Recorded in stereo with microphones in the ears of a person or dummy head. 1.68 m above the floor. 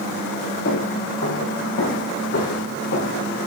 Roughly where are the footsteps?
Left.